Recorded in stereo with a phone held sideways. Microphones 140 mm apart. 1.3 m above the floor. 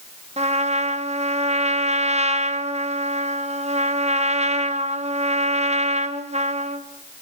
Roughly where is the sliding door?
I don't hear a sliding door.